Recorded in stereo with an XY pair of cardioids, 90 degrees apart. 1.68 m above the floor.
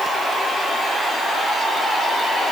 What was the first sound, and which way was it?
Only background noise.